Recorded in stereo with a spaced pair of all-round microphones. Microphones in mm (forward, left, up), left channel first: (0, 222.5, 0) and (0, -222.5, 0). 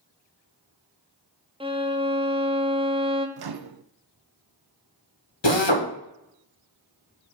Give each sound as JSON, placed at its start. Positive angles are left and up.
{"t": 1.6, "sound": "a violin", "side_deg": -10, "distance_m": 0.7}
{"t": 3.4, "sound": "a microwave", "side_deg": -60, "distance_m": 0.5}
{"t": 5.4, "sound": "a drill", "side_deg": 70, "distance_m": 1.3}